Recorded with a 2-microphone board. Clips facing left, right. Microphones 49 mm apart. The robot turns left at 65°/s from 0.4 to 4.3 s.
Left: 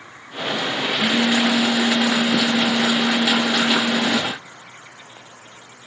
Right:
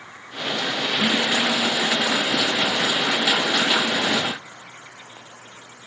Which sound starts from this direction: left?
A phone buzzing, at 1.0 s.